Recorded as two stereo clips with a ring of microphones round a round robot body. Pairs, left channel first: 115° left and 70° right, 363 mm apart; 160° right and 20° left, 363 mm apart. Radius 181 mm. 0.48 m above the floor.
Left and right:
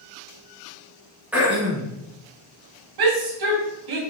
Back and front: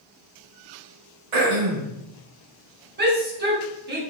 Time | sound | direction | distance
1.3 | throat clearing | 20° left | 2.5 m
3.0 | a shout | 40° right | 3 m